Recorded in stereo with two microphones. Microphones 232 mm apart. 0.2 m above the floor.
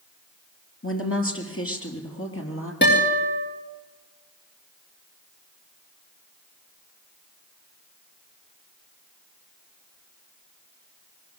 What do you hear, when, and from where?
0.8 s a woman speaking: 60° left (ahead or behind), 4 m
2.8 s a guitar: 45° left (ahead or behind), 6.5 m